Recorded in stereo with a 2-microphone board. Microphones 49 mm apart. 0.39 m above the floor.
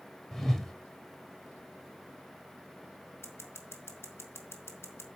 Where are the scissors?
60° left (ahead or behind), 1.8 m.